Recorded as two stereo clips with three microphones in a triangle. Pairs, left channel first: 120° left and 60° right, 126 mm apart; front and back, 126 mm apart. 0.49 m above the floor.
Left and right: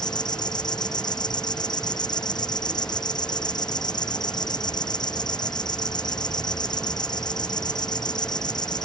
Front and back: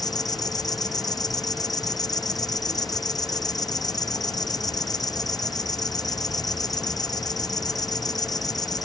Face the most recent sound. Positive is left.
turn(degrees=60)